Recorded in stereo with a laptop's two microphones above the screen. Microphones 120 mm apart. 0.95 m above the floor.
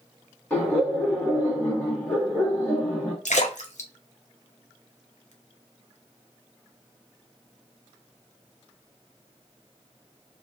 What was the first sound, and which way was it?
Laughter, 15° left (ahead or behind).